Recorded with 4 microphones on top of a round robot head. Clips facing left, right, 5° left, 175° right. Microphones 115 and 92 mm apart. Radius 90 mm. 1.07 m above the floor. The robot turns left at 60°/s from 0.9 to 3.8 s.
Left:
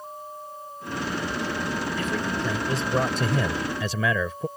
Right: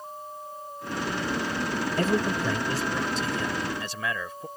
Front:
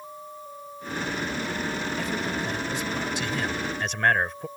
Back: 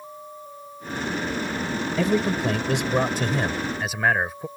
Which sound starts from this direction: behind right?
A man speaking, at 2.0 s.